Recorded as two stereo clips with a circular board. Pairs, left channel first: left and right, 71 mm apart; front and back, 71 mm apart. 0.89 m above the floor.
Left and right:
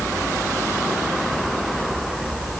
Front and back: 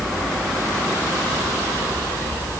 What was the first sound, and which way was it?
Only background noise.